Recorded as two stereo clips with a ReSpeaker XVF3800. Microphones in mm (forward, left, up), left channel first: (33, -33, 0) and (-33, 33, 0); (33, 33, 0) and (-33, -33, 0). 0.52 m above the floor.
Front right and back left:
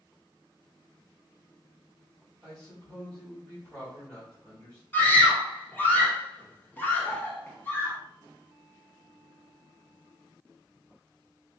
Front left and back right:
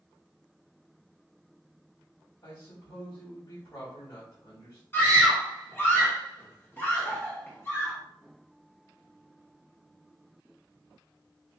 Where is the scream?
Straight ahead, 1.1 m.